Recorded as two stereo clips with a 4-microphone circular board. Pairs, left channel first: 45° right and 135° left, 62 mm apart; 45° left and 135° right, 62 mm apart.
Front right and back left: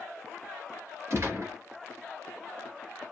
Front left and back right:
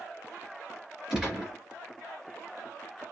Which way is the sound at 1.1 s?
150° left.